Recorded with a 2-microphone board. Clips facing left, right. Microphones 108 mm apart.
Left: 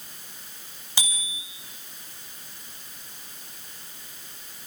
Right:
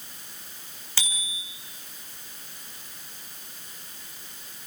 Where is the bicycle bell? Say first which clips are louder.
Left 2 dB; 15° left (ahead or behind), 5.5 m.